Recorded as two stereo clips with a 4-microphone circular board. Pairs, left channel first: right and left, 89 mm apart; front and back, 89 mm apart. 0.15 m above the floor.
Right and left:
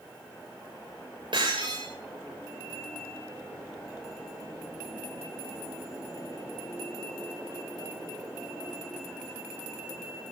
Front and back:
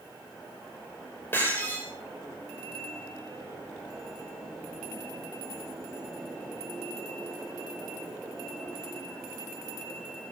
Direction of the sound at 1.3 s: 65° left.